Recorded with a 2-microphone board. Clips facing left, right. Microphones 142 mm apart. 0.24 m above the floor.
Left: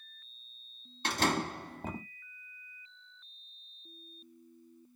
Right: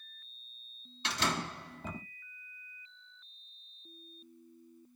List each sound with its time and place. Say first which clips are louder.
1.0 s a door slam: left 4 dB; 50° left (ahead or behind), 1.0 m